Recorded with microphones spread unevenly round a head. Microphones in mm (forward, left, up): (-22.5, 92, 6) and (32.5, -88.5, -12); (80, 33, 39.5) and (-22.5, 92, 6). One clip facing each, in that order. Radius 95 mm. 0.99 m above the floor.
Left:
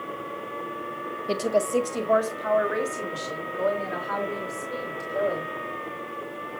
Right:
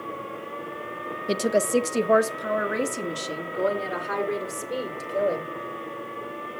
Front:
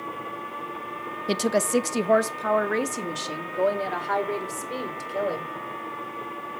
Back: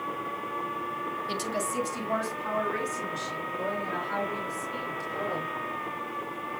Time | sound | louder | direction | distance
1.3 | a woman speaking | right 1 dB, front 12 dB | 10° right | 0.8 m